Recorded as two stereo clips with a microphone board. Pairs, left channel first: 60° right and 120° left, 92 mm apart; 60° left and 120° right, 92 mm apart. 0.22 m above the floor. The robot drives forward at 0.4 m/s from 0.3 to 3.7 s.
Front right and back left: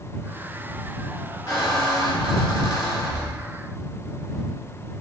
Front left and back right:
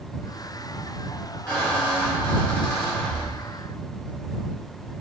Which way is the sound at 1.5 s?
15° right.